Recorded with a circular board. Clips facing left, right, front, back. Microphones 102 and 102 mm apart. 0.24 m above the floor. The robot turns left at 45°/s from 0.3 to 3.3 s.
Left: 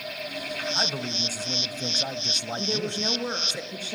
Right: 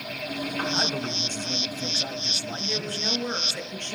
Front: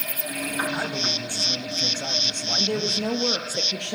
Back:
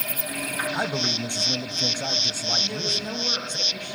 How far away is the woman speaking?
About 4.5 m.